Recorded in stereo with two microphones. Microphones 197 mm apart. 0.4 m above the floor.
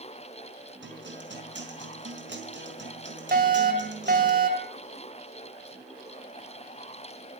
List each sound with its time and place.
0.8 s a guitar: 75° right (ahead or behind), 4.5 m
3.3 s a fire alarm: 50° right (ahead or behind), 3 m